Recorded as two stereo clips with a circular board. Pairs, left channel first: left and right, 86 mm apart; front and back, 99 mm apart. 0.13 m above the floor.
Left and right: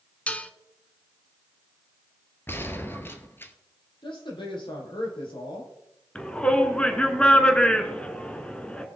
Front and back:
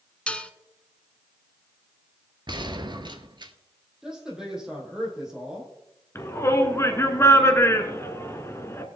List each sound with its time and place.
0.3 s dishes clattering: 55° left, 0.7 m
2.5 s a gunshot: 150° left, 1.0 m
4.0 s a woman speaking: 100° left, 4.5 m
6.2 s a shout: 30° left, 1.4 m